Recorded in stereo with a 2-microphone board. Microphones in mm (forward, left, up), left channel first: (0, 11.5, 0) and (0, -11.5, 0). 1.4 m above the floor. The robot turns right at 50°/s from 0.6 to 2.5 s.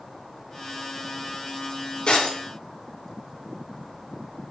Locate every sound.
2.1 s breaking glass: 55° left (ahead or behind), 3 m; by 2.4 s 40° left (ahead or behind), 3 m